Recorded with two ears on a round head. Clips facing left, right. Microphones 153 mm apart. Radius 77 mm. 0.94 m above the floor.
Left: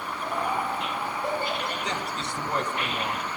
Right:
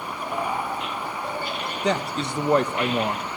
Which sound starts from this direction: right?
A man speaking, at 1.8 s.